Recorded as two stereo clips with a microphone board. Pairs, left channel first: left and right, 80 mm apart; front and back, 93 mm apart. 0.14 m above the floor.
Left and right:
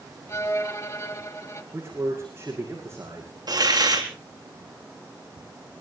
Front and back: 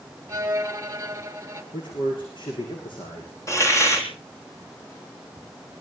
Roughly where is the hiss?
Ahead right.